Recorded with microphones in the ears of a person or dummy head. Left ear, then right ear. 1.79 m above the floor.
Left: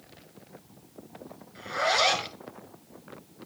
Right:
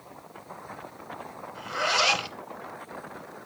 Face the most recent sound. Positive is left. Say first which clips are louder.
# even
turn(degrees=-20)  # may be behind; listen again after turning